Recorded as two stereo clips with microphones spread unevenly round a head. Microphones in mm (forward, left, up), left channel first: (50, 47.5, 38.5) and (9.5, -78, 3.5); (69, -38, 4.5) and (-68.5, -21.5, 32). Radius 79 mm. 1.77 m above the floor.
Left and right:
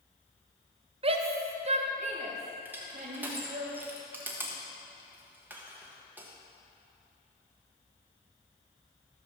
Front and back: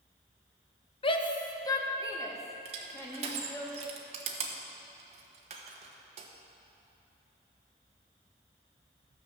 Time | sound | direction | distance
1.0 | a shout | 60° right | 1.1 m
2.6 | crushing | 165° left | 1.1 m